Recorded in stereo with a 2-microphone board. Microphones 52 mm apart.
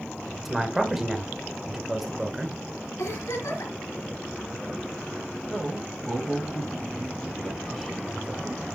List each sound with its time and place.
0.5 s a man speaking: 5° right (ahead or behind), 1.7 m
3.0 s a giggle: 80° left, 3.5 m
5.5 s a man speaking: 5° left (ahead or behind), 2.5 m